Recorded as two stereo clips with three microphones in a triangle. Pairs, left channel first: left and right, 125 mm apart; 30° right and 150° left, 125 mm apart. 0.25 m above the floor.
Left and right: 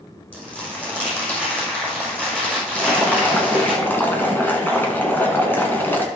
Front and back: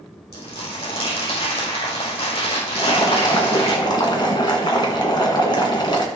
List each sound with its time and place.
0.3 s crumpling: 10° left, 6.5 m
2.8 s boiling: 20° left, 2.5 m